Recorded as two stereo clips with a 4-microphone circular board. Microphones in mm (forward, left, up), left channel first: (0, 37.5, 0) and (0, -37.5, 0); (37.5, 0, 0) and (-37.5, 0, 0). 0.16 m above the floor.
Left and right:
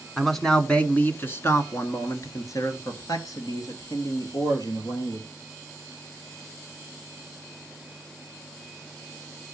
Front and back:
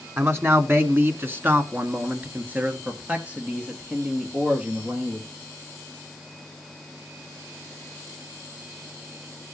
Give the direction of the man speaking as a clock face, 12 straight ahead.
6 o'clock.